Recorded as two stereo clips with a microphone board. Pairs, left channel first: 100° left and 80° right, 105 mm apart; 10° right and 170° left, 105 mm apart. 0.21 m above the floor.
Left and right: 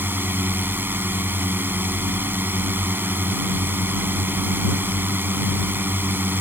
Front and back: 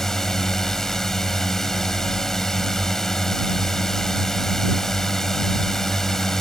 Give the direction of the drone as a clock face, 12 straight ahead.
3 o'clock.